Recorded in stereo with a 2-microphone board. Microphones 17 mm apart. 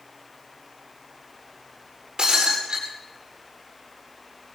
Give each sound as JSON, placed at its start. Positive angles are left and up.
{"t": 2.2, "sound": "breaking glass", "side_deg": -55, "distance_m": 9.0}